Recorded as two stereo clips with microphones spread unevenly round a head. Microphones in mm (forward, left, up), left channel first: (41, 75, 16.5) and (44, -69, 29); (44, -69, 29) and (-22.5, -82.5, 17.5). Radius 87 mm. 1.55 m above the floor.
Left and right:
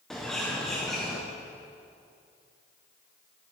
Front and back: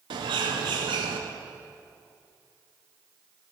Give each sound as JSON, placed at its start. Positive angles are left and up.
{"t": 0.1, "sound": "a bird", "azimuth_deg": 180, "distance_m": 0.6}